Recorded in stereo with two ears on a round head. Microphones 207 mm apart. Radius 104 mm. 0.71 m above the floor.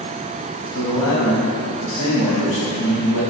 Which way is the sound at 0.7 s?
80° left.